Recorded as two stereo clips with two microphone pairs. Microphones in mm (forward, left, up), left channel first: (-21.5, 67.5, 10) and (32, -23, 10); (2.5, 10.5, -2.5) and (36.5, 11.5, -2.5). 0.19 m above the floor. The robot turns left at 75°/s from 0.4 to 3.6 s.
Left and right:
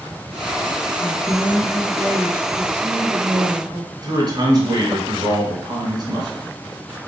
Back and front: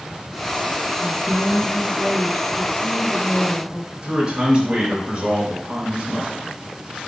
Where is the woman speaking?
35° left, 1.7 m; by 3.9 s 160° right, 1.7 m.